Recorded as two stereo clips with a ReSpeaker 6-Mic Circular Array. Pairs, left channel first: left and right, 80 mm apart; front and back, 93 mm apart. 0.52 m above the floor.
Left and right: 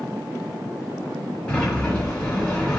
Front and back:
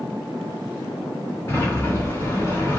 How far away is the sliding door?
About 1.4 m.